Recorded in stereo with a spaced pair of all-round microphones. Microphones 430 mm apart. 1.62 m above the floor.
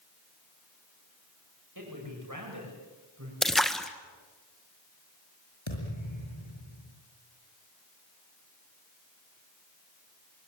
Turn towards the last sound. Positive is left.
turn(degrees=75)  # may be behind; listen again after turning